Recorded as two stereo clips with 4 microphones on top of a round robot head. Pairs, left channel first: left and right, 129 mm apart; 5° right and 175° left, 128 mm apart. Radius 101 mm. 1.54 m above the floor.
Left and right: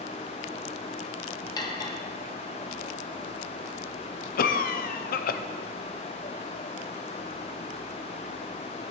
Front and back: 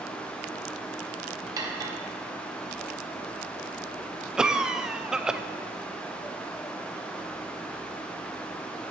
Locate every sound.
1.6 s cutlery clinking: 130° left, 0.8 m
4.4 s a cough: 90° left, 0.6 m